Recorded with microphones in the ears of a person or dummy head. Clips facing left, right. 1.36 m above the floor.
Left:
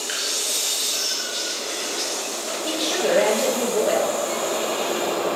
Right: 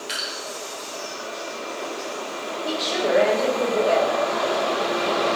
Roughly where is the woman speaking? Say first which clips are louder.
Left 1 dB; left.